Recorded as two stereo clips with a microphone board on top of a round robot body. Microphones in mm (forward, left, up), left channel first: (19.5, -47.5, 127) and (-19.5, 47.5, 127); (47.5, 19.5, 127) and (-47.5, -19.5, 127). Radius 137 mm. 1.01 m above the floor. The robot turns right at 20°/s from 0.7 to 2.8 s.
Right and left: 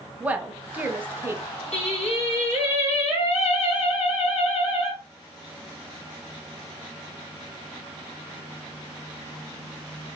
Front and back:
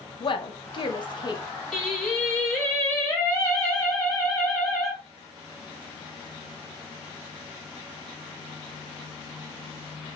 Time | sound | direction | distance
0.2 | a woman speaking | 40° left | 0.8 m
1.7 | singing | 65° right | 1.7 m